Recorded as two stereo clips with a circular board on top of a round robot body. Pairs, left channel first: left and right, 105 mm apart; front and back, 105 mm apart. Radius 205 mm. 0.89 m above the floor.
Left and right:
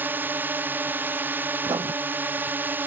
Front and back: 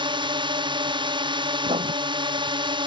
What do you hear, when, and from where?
0.0 s a drone: 160° right
1.6 s writing: 145° right